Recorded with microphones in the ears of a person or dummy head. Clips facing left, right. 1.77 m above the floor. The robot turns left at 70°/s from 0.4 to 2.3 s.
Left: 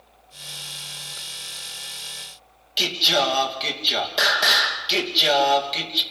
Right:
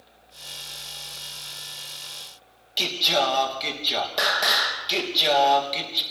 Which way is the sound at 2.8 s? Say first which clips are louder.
Left 1 dB; 5° left (ahead or behind).